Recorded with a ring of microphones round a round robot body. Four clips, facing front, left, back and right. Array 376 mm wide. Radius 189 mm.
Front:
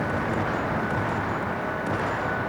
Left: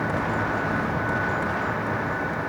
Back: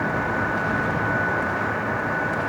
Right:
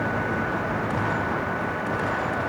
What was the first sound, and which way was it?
Only background noise.